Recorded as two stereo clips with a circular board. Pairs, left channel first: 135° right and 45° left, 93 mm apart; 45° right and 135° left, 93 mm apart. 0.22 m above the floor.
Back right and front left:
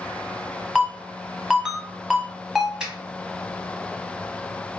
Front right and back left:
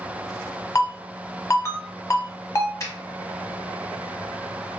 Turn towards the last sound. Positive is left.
turn(degrees=-30)